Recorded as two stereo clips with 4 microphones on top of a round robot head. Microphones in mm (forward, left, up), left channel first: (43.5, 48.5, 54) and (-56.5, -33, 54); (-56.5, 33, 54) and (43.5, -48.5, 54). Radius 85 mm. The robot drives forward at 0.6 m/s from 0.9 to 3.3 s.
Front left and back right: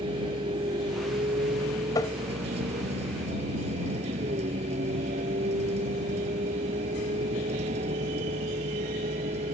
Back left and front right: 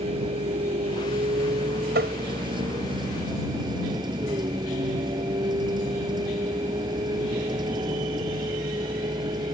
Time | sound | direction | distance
0.0 | a vehicle | 85° right | ?
1.9 | tapping | 25° right | ?